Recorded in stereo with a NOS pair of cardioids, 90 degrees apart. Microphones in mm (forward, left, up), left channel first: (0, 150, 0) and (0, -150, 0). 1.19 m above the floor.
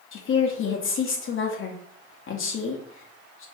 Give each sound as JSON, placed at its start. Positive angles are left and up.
{"t": 0.1, "sound": "a woman speaking", "azimuth_deg": 45, "distance_m": 0.7}